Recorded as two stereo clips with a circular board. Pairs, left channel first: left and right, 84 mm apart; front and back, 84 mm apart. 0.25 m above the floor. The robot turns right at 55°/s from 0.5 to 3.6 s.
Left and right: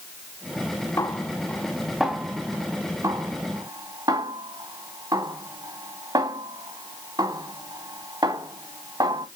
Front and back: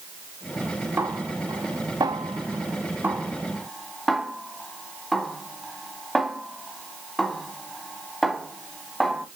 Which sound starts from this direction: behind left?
A snare drum, at 1.0 s.